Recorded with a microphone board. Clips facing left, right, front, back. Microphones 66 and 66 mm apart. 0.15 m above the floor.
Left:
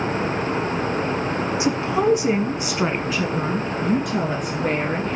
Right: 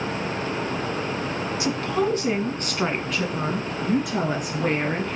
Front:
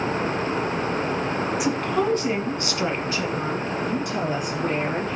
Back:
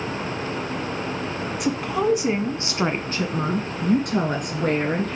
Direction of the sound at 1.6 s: 80° left.